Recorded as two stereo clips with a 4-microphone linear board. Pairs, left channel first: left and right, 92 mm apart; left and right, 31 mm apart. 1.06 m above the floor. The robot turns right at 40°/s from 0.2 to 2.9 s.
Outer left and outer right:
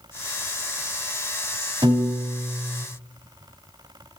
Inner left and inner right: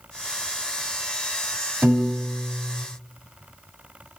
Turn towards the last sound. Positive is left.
turn(degrees=-80)